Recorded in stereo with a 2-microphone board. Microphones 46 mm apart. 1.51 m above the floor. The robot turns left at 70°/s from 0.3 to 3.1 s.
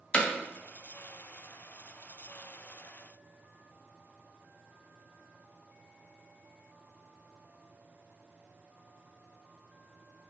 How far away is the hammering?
About 0.5 m.